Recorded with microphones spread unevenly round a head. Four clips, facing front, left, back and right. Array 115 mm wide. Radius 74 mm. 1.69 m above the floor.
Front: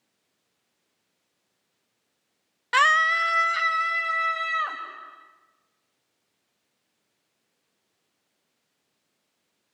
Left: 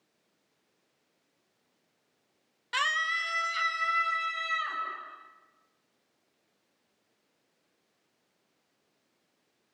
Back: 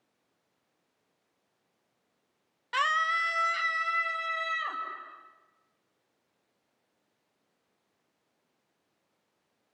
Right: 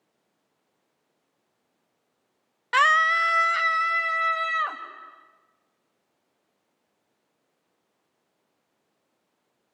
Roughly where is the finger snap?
No finger snap in this recording.